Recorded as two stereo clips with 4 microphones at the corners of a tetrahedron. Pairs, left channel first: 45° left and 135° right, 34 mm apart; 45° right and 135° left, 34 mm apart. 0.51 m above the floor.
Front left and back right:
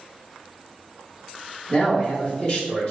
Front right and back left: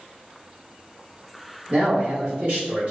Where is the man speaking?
95° left, 1.6 m.